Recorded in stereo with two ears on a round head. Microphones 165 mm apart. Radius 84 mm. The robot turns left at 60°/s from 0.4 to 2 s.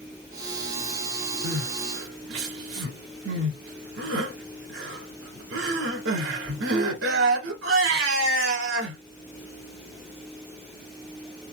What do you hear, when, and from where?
1.4 s crying: 55° right (ahead or behind), 2 m; by 9.0 s 85° right, 2 m